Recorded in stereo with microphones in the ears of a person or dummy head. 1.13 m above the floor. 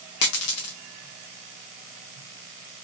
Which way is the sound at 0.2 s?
45° left (ahead or behind).